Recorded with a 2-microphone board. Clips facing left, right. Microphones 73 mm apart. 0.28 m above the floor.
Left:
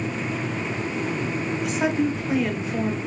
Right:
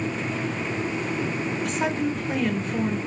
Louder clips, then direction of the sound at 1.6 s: Left 4 dB; 5° left (ahead or behind).